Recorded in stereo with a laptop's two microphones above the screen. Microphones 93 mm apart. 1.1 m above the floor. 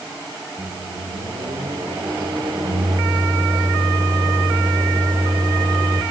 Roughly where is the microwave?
Right.